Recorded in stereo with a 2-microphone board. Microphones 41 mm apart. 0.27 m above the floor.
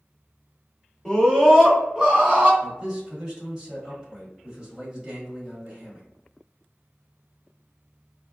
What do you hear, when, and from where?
1.1 s a scream: 10° left (ahead or behind), 1.3 m; by 2.5 s 25° right (ahead or behind), 1.4 m
2.6 s a man speaking: 25° right (ahead or behind), 1.4 m